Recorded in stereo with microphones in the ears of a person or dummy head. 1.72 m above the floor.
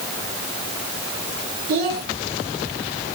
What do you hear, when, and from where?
1.7 s a child speaking: 45° right (ahead or behind), 1.1 m